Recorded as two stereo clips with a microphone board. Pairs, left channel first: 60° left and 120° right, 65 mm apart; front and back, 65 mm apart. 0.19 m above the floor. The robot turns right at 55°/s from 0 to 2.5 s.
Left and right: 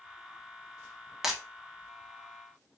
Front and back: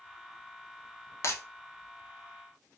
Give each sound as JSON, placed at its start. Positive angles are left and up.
{"t": 1.2, "sound": "breaking glass", "azimuth_deg": -40, "distance_m": 0.6}